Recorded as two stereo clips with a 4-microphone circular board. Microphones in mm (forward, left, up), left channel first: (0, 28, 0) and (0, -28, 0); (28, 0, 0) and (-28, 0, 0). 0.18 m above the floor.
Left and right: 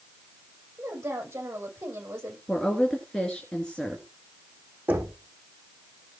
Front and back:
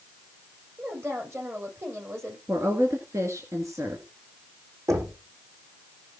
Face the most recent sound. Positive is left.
turn(degrees=-150)